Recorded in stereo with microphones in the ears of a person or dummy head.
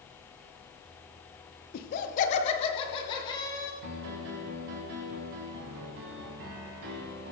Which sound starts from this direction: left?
Laughter, at 1.7 s.